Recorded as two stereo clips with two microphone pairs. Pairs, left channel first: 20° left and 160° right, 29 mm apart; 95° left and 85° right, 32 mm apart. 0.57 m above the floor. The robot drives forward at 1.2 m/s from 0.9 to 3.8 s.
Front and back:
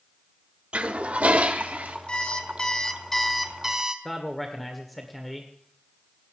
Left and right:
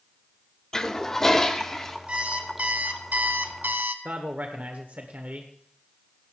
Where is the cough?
I don't hear a cough.